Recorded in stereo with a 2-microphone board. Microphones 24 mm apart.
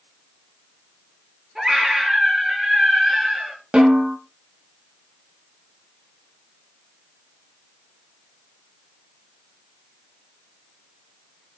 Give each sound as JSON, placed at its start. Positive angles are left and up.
{"t": 1.6, "sound": "a scream", "side_deg": -25, "distance_m": 4.5}
{"t": 3.7, "sound": "a snare drum", "side_deg": -35, "distance_m": 1.7}